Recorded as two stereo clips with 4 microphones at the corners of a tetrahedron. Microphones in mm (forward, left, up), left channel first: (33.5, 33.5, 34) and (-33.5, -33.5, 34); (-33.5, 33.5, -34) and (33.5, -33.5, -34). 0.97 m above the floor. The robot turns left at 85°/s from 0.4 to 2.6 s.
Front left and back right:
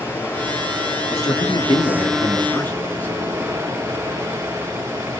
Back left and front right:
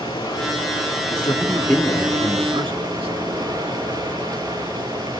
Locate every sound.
0.0 s running water: 105° left, 5.5 m; by 5.2 s 80° right, 5.5 m
1.1 s a man speaking: 100° left, 2 m; by 3.1 s 25° right, 2 m